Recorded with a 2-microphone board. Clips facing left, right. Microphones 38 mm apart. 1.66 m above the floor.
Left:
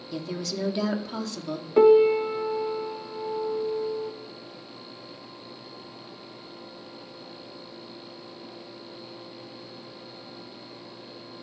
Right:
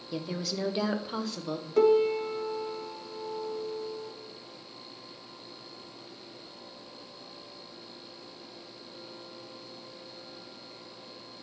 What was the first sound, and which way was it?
A woman speaking, 10° right (ahead or behind).